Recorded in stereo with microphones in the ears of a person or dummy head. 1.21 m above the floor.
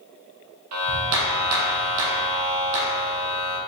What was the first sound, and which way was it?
A clap, 75° right (ahead or behind).